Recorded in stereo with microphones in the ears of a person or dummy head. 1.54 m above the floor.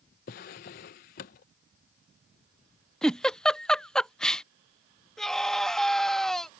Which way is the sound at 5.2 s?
Centre (ahead or behind).